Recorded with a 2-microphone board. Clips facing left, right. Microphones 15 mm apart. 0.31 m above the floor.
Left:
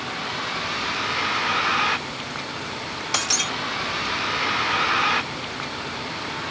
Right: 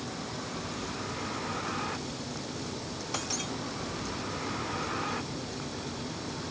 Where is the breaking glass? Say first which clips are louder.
Left 12 dB; 45° left (ahead or behind).